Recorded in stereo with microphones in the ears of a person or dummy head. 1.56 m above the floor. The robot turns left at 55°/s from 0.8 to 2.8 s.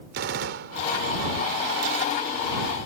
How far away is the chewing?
I don't hear chewing.